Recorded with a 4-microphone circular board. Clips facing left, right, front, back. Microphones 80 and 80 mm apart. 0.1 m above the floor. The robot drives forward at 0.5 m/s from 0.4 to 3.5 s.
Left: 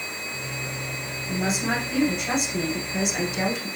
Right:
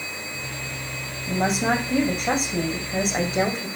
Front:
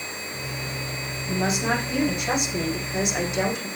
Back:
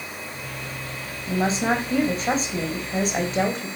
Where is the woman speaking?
125° right, 4.5 m; by 3.7 s 135° right, 5 m.